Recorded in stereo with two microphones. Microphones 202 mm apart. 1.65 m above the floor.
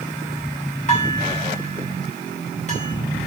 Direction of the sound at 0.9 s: 35° left (ahead or behind).